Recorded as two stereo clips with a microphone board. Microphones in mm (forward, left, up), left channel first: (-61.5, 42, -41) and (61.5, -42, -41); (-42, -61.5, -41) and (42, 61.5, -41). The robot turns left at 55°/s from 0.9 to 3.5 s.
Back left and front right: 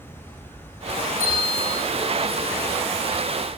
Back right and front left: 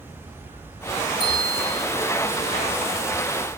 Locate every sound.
0.0 s an insect: 85° right, 4.5 m; by 3.6 s 135° left, 4.5 m
1.2 s a bell: 65° right, 7 m; by 1.8 s 100° right, 7 m